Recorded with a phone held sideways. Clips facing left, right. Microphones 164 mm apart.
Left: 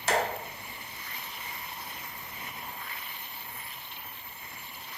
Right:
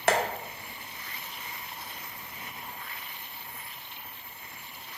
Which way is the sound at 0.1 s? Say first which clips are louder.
Right 3 dB; 65° right (ahead or behind).